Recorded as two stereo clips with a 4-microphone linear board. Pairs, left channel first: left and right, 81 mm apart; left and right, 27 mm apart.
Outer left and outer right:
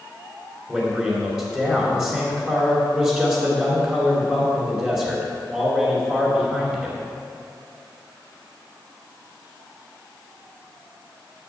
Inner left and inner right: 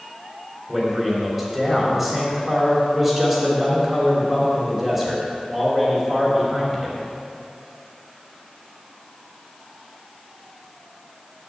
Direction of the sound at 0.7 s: 15° right (ahead or behind).